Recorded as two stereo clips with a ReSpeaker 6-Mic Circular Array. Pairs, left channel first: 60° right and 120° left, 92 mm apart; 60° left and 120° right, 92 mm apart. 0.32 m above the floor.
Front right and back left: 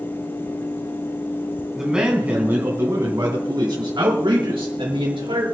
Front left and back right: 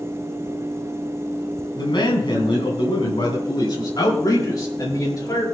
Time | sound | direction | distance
1.8 | a man speaking | 35° left | 3 m